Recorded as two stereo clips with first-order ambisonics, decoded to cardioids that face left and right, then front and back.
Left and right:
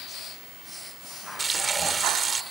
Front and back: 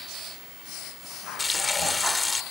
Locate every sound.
1.4 s frying: 45° right